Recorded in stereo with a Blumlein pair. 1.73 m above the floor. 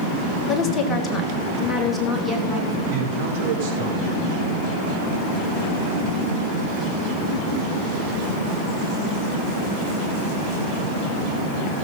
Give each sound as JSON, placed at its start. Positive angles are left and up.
{"t": 0.5, "sound": "a woman speaking", "azimuth_deg": 25, "distance_m": 2.0}
{"t": 2.9, "sound": "a man speaking", "azimuth_deg": -50, "distance_m": 5.0}